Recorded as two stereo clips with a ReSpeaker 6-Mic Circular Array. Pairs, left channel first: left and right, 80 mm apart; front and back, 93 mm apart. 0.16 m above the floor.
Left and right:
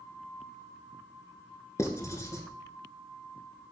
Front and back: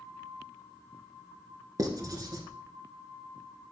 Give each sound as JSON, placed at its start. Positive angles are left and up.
{"t": 1.8, "sound": "writing", "azimuth_deg": 135, "distance_m": 0.6}